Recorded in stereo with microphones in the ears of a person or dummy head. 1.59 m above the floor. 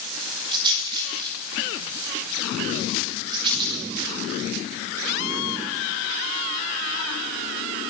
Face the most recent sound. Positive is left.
turn(degrees=-25)  # may be behind; listen again after turning